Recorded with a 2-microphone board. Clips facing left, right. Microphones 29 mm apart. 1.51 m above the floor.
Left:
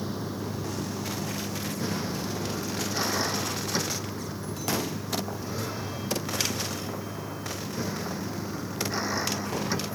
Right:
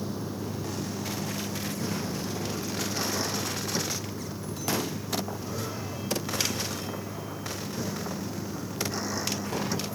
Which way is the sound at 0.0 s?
25° left (ahead or behind).